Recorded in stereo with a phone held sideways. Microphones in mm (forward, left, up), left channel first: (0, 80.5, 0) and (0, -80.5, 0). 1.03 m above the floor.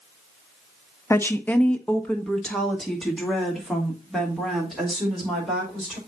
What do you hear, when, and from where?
1.1 s a woman speaking: 15° left (ahead or behind), 0.6 m; by 6.0 s centre (ahead or behind), 4.5 m